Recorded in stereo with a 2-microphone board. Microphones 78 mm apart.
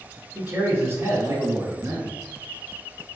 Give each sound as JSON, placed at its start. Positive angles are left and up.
{"t": 0.3, "sound": "a man speaking", "side_deg": -25, "distance_m": 1.2}